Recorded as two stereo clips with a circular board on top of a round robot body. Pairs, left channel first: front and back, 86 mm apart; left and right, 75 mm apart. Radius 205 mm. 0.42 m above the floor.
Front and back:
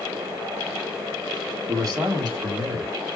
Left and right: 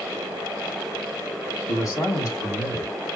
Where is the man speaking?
130° left, 3 m; by 2.9 s 155° left, 2 m.